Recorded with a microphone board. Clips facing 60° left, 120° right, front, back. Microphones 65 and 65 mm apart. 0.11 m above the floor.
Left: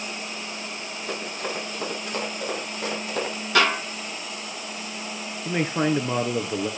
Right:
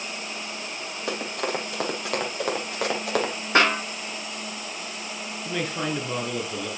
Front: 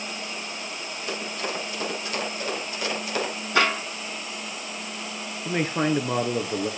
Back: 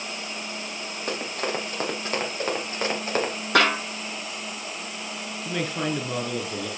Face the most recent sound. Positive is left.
turn(degrees=25)